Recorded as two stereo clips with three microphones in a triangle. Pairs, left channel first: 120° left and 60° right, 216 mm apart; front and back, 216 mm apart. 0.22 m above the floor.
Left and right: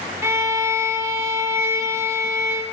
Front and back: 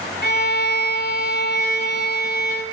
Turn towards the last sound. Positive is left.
turn(degrees=15)